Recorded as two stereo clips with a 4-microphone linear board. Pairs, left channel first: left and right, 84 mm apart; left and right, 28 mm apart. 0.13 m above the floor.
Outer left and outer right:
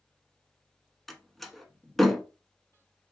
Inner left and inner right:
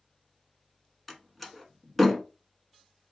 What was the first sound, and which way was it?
A door slam, 5° left (ahead or behind).